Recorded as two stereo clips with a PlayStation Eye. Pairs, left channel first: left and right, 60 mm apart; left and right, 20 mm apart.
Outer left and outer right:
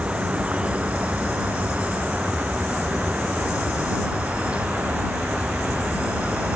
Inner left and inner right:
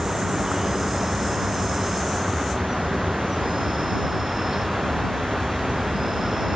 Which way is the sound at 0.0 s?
20° right (ahead or behind).